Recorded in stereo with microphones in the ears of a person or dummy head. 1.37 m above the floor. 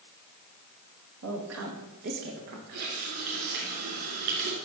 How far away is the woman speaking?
About 2.5 m.